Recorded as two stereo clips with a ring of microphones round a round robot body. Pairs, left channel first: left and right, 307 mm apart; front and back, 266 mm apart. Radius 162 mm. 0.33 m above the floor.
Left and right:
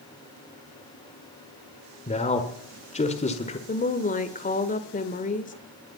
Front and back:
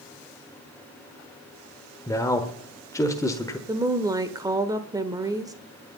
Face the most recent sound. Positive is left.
turn(degrees=120)